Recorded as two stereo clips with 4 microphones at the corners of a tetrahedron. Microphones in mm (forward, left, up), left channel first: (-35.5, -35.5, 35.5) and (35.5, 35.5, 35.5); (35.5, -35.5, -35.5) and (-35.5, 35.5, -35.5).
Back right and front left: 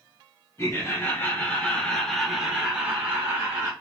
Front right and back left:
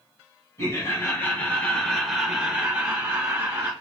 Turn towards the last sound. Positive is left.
turn(degrees=95)